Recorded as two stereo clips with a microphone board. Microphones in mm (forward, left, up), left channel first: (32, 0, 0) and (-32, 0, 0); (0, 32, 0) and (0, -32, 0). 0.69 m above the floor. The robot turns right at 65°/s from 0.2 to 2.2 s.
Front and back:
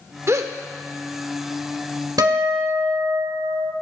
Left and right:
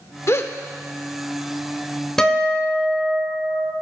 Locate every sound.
0.3 s a gasp: 130° left, 0.5 m; by 0.6 s 150° left, 0.5 m
2.2 s a guitar: 170° left, 0.9 m